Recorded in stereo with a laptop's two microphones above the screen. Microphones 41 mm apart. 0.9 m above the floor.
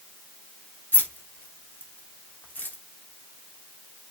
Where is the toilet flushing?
No toilet flushing in this recording.